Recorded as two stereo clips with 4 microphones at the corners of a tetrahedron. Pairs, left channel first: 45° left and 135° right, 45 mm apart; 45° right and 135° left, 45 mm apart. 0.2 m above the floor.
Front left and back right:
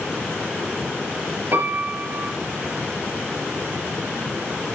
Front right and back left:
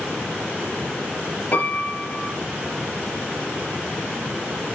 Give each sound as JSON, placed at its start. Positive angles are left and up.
{"t": 1.5, "sound": "a piano", "azimuth_deg": -100, "distance_m": 6.5}